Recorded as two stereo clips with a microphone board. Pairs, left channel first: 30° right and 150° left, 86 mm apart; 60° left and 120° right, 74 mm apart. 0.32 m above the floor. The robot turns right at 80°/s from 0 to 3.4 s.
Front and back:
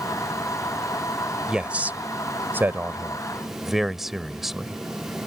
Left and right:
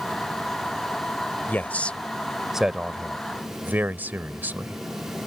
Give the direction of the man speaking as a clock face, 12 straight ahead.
9 o'clock.